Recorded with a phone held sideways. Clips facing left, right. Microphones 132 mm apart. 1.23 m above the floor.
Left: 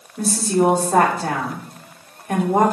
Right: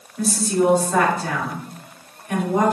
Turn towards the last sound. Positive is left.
turn(degrees=45)  # may be behind; listen again after turning